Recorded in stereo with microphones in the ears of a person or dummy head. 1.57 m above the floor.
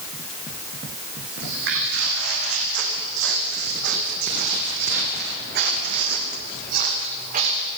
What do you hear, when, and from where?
1.4 s footsteps: 65° right (ahead or behind), 5.5 m; by 7.7 s 45° right (ahead or behind), 5 m